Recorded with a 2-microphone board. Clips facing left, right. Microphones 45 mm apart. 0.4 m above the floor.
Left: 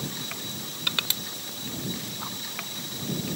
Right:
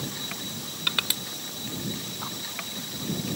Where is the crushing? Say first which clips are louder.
Right 1 dB; 10° right (ahead or behind).